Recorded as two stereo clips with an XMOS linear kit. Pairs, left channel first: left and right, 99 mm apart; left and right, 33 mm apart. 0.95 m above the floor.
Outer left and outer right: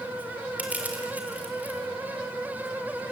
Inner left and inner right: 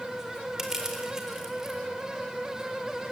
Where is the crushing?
15° right (ahead or behind), 4 m.